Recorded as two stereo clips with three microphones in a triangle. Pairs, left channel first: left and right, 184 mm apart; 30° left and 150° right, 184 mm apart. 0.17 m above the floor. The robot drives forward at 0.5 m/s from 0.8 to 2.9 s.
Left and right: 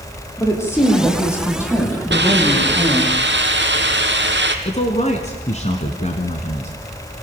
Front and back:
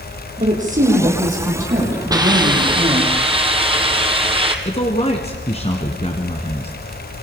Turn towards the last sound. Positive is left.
turn(degrees=65)